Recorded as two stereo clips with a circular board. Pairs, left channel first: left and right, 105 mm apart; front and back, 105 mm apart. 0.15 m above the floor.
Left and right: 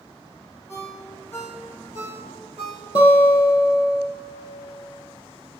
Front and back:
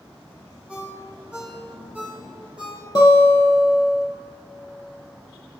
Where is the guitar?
50° left, 4 m.